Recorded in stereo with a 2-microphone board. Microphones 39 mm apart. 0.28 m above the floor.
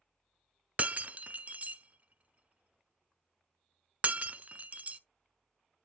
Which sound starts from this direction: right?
Breaking glass, at 0.8 s.